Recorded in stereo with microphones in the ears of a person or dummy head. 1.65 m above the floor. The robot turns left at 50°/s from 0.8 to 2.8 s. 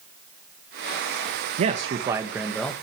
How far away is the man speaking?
About 1.3 m.